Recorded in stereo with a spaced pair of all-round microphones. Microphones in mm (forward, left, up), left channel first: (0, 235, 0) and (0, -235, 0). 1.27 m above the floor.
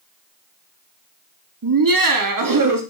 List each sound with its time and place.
1.6 s laughter: 45° right (ahead or behind), 0.5 m